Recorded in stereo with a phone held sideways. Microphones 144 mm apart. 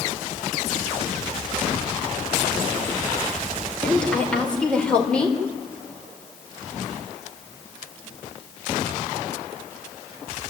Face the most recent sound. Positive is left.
turn(degrees=5)  # may be behind; listen again after turning